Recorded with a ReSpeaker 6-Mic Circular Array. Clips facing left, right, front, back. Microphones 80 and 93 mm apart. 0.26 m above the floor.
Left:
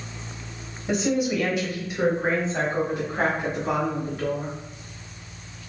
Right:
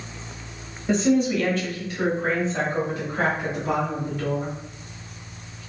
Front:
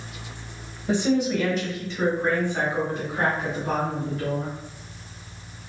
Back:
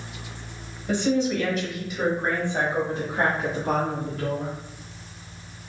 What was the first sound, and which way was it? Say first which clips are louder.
A woman speaking: right 3 dB, front 1 dB; 15° left.